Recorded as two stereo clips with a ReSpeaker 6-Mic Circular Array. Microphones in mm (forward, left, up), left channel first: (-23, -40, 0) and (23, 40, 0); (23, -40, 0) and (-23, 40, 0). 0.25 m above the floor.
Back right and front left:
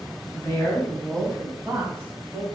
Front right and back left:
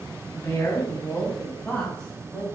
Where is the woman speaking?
80° right, 2.0 m; by 2.4 s 25° left, 2 m.